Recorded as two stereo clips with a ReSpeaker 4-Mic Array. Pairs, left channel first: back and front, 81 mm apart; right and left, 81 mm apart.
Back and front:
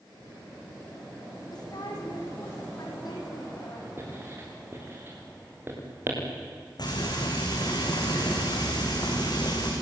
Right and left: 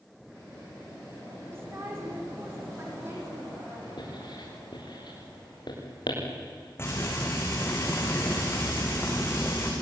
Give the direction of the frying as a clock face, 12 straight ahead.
5 o'clock.